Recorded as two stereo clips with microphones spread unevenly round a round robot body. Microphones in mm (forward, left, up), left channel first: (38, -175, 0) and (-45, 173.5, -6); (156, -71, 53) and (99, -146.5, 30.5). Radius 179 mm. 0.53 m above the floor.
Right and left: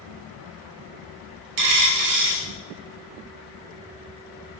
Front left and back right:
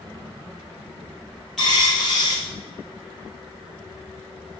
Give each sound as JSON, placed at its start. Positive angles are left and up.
{"t": 1.6, "sound": "a dropped coin", "azimuth_deg": 140, "distance_m": 1.5}